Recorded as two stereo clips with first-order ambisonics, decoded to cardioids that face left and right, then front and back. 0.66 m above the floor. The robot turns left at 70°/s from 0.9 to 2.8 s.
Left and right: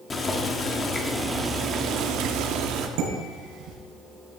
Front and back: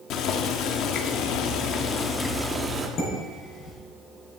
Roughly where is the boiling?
Ahead left.